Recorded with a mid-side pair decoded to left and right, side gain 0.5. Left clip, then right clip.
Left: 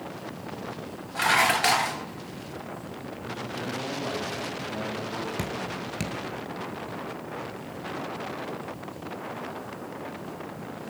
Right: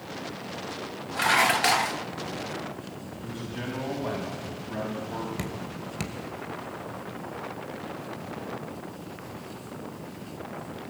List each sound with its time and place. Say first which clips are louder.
1.1 s dishes clattering: even; 5° left, 0.7 m
3.2 s a man speaking: left 2 dB; 25° right, 7 m
5.4 s dripping: left 4 dB; 5° left, 2.5 m